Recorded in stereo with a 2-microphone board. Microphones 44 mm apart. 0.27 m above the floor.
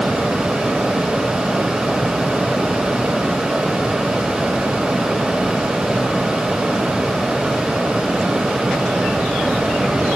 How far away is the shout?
No shout in this recording.